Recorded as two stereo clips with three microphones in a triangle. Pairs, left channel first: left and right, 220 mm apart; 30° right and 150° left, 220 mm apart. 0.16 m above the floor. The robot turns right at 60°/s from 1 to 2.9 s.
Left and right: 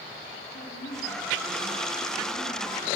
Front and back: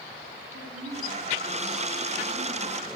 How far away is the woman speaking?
About 10 m.